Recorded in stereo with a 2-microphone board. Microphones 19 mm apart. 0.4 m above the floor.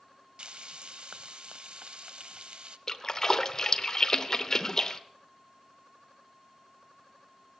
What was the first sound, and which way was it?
Frying, 60° right (ahead or behind).